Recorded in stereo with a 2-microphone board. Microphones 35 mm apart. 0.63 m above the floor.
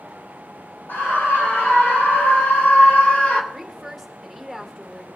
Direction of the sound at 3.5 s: Centre (ahead or behind).